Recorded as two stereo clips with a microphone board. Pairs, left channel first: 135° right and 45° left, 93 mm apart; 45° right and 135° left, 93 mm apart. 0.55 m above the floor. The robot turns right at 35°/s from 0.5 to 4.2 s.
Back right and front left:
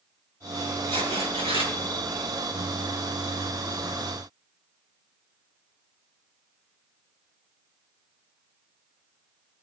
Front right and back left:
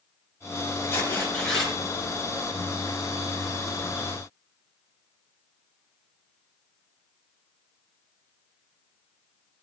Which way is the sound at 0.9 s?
20° left.